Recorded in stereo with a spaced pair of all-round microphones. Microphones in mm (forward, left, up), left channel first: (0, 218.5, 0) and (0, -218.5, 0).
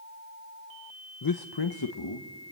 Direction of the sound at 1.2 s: 50° left (ahead or behind).